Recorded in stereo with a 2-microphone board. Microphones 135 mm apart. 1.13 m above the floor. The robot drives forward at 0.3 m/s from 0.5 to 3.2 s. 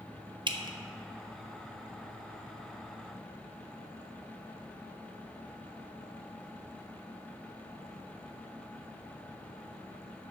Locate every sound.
0.5 s dripping: 35° right (ahead or behind), 0.8 m; by 0.8 s 30° right (ahead or behind), 0.9 m